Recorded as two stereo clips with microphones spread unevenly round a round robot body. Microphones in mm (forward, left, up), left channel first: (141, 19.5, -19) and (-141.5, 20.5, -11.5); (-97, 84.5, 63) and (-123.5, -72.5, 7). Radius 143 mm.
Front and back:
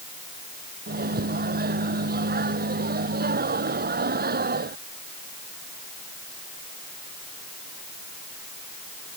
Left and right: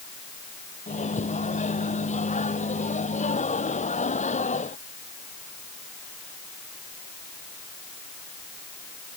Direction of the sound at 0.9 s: 120° left.